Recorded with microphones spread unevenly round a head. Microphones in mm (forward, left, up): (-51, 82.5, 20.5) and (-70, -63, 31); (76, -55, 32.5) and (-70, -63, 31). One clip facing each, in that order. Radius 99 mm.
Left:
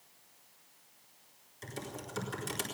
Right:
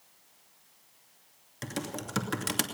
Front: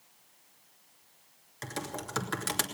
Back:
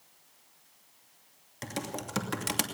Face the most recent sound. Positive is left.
turn(degrees=-105)